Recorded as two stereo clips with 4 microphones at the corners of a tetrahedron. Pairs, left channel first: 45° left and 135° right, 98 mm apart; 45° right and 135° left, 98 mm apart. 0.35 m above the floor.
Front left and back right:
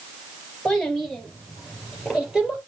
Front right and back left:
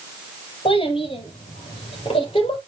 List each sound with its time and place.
0.7 s a child speaking: 40° right, 5 m; by 2.6 s 50° right, 6.5 m